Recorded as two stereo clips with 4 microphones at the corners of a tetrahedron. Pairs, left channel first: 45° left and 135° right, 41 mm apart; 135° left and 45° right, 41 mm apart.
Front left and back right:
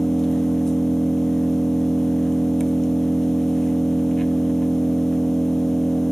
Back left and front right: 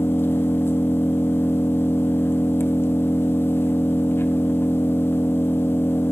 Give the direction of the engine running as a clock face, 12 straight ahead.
8 o'clock.